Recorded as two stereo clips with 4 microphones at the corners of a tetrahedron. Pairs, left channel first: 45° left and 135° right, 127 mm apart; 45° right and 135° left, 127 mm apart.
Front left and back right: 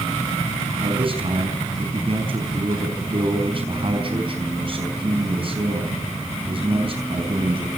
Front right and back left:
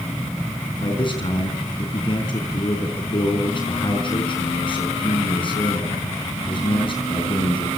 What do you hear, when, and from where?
0.8 s a man speaking: 90° right, 4.5 m